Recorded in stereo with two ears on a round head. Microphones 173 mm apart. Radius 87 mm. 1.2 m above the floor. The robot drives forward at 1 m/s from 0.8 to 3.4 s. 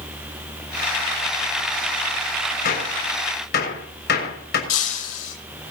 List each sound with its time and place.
2.6 s a gunshot: 50° left (ahead or behind), 6.5 m; by 4.6 s 55° left (ahead or behind), 6 m
4.7 s breaking glass: 80° left, 9.5 m